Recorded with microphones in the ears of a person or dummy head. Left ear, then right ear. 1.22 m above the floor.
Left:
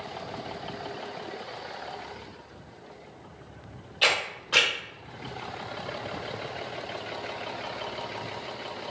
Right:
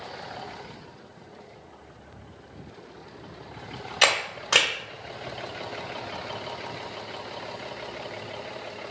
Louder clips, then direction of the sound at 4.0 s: Right 2 dB; 55° right (ahead or behind).